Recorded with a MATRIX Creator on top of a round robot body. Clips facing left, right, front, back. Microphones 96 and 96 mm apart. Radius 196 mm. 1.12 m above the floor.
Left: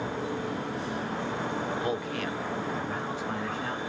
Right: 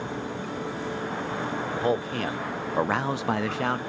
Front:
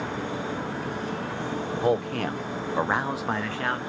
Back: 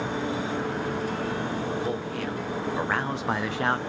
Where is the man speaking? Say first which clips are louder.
Right 4 dB, front 5 dB; 30° right, 0.9 m; by 3.8 s 115° right, 0.6 m.